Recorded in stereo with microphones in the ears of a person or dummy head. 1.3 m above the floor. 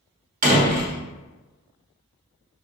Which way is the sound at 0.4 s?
45° right (ahead or behind).